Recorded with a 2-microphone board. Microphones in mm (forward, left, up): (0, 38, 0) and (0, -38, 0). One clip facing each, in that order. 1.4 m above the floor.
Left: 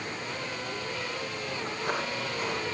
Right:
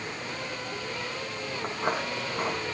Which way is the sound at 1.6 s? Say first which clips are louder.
Right 3 dB; 65° right (ahead or behind).